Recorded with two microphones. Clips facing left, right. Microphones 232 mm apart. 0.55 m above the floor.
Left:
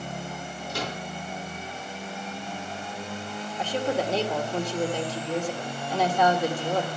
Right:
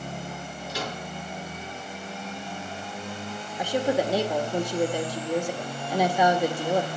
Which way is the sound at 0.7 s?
60° left (ahead or behind).